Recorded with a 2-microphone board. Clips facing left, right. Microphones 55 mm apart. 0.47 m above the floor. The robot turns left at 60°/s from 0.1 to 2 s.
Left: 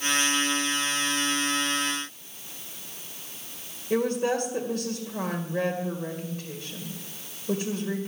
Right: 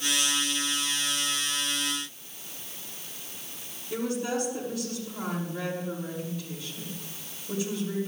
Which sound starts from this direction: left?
A woman speaking, at 3.9 s.